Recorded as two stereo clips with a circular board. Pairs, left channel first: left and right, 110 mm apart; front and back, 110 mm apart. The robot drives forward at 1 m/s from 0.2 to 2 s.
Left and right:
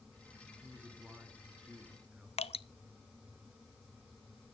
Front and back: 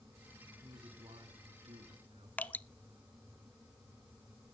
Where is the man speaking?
165° right, 2.5 m; by 2.3 s 170° right, 3.5 m.